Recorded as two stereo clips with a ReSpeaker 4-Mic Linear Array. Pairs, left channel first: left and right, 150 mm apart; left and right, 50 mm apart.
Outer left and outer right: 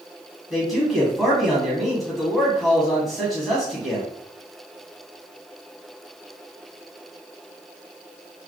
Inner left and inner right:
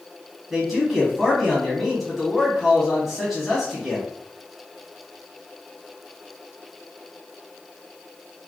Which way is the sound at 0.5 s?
Centre (ahead or behind).